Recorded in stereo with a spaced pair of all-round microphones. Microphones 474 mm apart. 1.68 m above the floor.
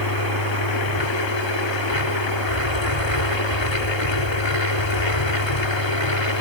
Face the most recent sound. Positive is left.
turn(degrees=65)  # may be behind; listen again after turning